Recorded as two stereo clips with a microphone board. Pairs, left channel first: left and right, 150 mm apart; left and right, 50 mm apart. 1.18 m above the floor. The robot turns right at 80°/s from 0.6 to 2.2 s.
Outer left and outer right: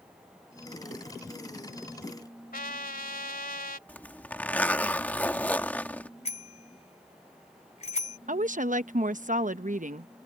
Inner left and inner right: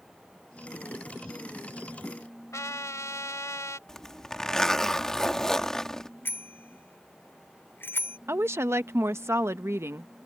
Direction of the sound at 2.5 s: 75° left (ahead or behind).